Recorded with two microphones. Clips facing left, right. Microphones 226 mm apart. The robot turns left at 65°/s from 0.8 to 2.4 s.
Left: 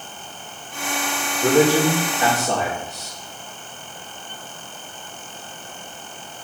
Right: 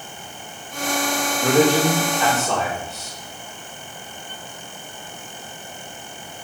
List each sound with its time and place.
1.4 s a man speaking: 175° right, 1.1 m; by 3.1 s 125° left, 1.1 m